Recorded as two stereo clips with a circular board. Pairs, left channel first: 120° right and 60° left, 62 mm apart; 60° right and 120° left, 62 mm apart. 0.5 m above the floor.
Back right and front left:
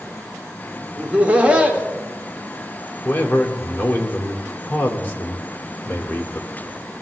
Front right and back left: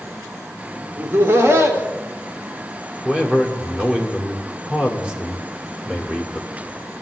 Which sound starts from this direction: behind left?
Laughter, at 1.0 s.